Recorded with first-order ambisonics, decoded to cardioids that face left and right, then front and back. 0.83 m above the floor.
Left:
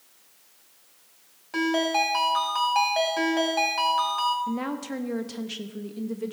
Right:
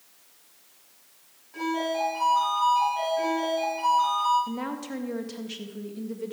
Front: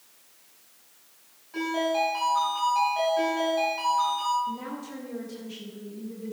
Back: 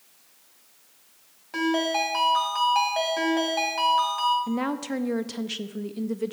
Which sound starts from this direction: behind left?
A ringtone, at 1.5 s.